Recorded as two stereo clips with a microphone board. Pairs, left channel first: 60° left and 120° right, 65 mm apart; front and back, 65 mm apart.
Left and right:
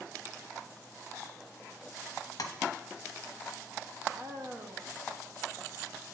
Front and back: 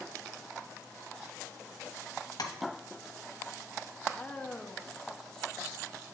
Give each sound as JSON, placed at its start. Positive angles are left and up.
{"t": 2.4, "sound": "tapping", "azimuth_deg": 25, "distance_m": 0.8}
{"t": 4.1, "sound": "a woman speaking", "azimuth_deg": -80, "distance_m": 0.8}